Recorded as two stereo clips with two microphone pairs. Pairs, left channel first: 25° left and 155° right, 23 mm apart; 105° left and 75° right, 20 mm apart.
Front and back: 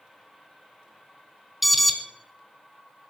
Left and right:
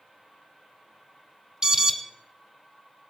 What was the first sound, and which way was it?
An alarm, 65° right.